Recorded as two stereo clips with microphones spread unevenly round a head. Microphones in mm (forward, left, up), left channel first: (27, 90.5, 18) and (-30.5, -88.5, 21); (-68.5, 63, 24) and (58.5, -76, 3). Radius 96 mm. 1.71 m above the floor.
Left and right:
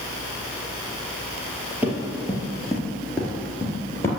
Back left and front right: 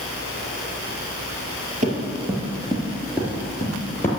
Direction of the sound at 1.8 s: 35° right.